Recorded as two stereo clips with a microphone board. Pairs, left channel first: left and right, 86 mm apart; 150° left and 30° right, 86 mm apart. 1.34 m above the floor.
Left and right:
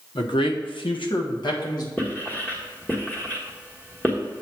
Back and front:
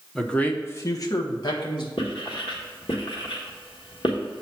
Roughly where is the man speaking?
Ahead left.